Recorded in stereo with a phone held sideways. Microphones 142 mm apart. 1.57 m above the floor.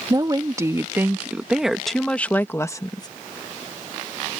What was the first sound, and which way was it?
A woman speaking, 30° right (ahead or behind).